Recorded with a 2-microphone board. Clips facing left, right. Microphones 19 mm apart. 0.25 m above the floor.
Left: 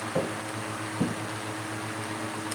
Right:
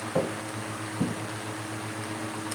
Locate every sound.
0.1 s footsteps: 10° right (ahead or behind), 0.7 m; by 1.2 s 25° left (ahead or behind), 0.9 m